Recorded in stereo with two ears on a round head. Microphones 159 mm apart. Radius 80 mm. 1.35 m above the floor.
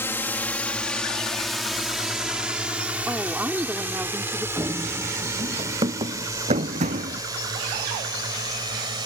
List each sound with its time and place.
0.0 s a drone: 10° left (ahead or behind); by 9.1 s 25° right (ahead or behind)
3.1 s a woman speaking: 10° right (ahead or behind)
4.6 s running footsteps: 15° right (ahead or behind); by 7.2 s 40° right (ahead or behind)